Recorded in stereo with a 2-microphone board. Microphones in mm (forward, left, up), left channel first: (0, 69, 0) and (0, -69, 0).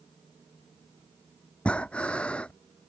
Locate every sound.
1.6 s breathing: 10° left (ahead or behind)